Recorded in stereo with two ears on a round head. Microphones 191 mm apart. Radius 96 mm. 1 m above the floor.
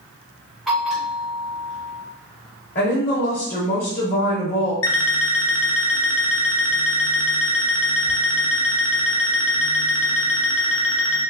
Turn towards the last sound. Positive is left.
turn(degrees=65)  # may be behind; listen again after turning